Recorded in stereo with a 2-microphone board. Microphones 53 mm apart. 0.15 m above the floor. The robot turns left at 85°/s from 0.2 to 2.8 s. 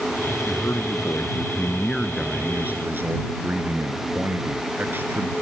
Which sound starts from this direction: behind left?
A man speaking, at 0.5 s.